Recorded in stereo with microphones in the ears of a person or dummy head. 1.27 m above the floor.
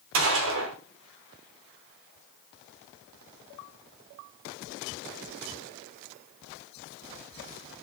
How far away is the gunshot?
About 0.8 m.